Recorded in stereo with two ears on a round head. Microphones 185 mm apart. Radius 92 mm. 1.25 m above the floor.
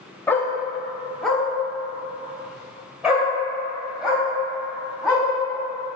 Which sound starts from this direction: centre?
A dog barking, at 0.3 s.